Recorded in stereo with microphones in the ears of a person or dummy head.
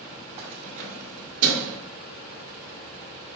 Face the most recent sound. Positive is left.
turn(degrees=-45)  # may be behind; listen again after turning